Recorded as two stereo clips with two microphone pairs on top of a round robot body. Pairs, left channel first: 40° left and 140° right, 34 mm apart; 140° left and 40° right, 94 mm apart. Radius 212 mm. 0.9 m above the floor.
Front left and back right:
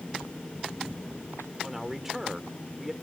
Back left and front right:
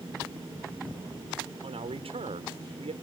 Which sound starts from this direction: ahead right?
A man speaking, at 1.6 s.